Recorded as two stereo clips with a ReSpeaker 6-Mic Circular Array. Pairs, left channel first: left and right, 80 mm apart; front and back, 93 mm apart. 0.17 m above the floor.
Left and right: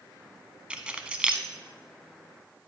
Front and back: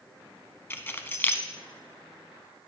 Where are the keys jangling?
30° right, 0.8 m.